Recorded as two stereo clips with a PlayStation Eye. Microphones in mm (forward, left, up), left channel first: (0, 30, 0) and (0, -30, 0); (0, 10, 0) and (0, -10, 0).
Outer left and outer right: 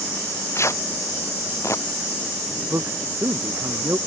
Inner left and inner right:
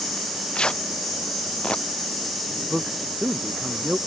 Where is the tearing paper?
55° left (ahead or behind).